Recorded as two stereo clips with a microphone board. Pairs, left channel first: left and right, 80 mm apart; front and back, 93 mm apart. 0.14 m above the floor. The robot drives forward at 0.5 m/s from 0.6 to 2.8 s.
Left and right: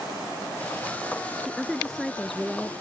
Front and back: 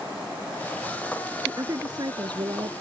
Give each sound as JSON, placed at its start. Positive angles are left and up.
{"t": 1.4, "sound": "a woman speaking", "azimuth_deg": 175}